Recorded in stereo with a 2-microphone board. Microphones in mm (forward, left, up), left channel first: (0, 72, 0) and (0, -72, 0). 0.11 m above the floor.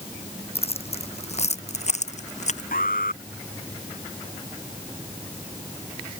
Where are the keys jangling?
45° left (ahead or behind); by 2.6 s 55° left (ahead or behind).